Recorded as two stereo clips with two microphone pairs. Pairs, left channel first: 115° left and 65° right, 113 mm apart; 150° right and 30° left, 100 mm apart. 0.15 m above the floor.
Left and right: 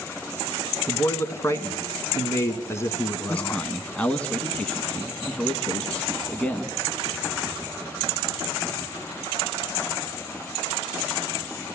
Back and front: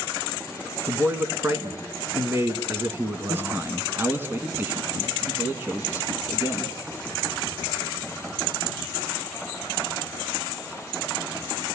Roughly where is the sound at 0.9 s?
Left.